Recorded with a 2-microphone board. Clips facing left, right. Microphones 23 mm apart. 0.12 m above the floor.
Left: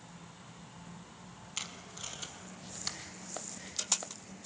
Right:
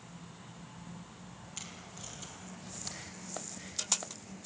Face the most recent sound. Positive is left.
turn(degrees=30)  # may be behind; listen again after turning